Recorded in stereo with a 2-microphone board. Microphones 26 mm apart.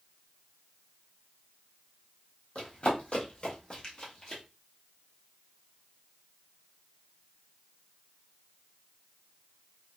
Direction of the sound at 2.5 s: 50° left (ahead or behind).